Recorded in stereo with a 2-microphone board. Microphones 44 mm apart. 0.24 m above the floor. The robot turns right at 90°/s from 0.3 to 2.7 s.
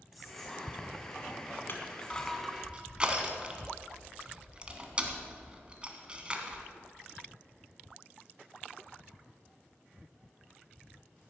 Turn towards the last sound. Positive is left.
turn(degrees=-20)  # may be behind; listen again after turning